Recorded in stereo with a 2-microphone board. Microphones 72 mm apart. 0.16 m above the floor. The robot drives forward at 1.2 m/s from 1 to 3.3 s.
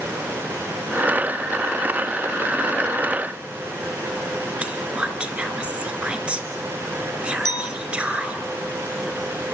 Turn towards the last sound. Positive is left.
turn(degrees=70)  # may be behind; listen again after turning